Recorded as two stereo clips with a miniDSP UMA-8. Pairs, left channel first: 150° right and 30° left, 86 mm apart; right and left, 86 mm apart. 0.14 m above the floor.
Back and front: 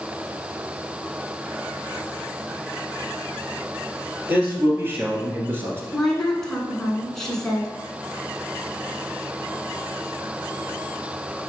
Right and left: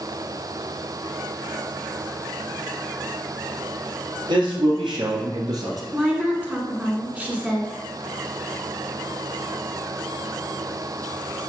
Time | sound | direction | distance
4.3 | a man speaking | 95° left | 3 m
5.9 | a woman speaking | 135° left | 1.6 m